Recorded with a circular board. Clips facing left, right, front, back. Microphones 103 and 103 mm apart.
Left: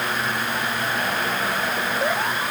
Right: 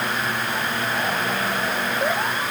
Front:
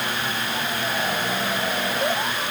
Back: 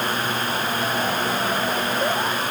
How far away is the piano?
No piano in this recording.